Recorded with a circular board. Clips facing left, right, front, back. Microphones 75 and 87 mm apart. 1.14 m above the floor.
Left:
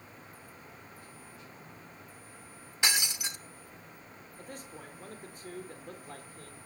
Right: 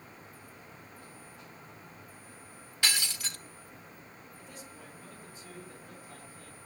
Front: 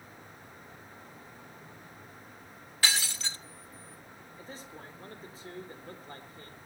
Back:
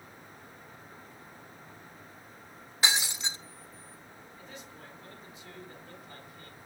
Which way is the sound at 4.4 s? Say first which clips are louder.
Left 5 dB, front 3 dB; 50° left.